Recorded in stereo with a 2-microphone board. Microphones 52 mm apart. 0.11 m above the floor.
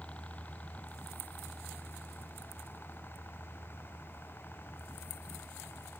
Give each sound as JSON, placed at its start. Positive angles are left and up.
{"t": 0.0, "sound": "a helicopter", "side_deg": 20}